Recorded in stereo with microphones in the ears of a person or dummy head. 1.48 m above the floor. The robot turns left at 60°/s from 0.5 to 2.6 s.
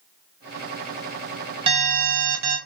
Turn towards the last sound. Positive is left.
turn(degrees=-85)